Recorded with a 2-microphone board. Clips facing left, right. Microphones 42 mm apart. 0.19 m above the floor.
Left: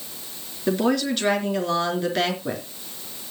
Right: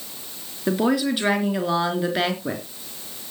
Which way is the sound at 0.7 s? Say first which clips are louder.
Right 1 dB; 10° right (ahead or behind).